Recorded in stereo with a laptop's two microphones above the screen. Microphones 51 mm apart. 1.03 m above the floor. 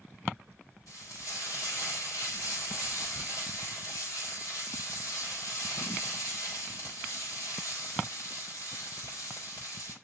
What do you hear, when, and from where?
0.9 s frying: 70° left (ahead or behind), 4 m